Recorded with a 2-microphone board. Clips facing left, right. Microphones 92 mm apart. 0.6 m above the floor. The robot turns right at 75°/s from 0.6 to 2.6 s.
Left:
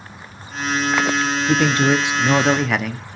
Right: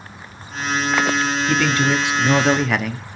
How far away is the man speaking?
About 0.7 m.